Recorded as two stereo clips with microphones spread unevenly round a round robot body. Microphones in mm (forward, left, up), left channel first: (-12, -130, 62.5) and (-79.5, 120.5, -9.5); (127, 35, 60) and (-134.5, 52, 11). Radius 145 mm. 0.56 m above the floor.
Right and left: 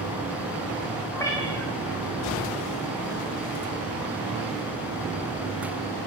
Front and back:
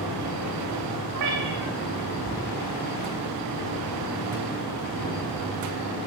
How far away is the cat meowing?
About 5.5 m.